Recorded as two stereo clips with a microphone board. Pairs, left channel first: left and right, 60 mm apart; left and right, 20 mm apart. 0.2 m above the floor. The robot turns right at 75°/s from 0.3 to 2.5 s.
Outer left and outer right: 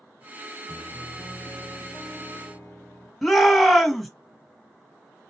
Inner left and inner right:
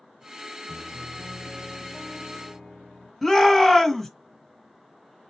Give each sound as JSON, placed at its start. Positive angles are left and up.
{"t": 0.7, "sound": "a piano", "azimuth_deg": -50, "distance_m": 1.7}
{"t": 3.2, "sound": "a shout", "side_deg": 0, "distance_m": 1.4}